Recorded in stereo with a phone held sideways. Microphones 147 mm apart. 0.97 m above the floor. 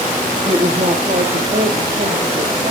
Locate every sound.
0.5 s a woman speaking: 50° right (ahead or behind), 1.3 m; by 2.7 s 80° right, 2 m